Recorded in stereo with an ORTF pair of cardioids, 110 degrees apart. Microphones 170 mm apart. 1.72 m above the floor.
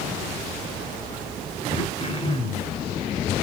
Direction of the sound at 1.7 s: 30° left.